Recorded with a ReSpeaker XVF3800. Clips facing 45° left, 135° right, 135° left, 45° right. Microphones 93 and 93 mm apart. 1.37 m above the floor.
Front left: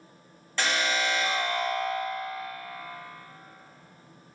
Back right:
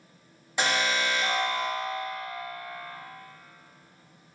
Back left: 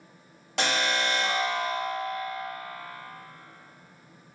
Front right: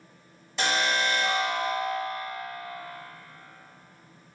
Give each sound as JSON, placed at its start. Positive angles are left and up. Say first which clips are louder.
{"t": 0.6, "sound": "an alarm", "louder": "back right 1 dB, front right 1 dB", "azimuth_deg": 150, "distance_m": 2.5}